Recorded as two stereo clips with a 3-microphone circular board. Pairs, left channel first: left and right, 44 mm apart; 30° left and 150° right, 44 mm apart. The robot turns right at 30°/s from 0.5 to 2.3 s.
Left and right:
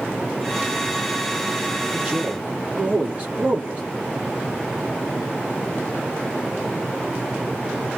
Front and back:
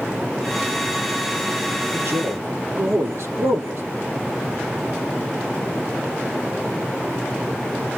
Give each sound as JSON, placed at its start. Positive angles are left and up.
{"t": 1.9, "sound": "a man speaking", "azimuth_deg": -160, "distance_m": 3.5}